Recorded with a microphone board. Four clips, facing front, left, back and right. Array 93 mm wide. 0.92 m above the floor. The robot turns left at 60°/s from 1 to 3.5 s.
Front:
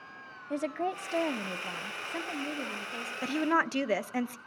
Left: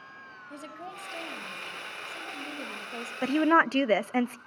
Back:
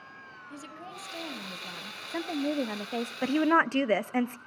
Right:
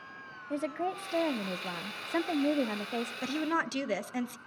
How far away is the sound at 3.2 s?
About 0.5 m.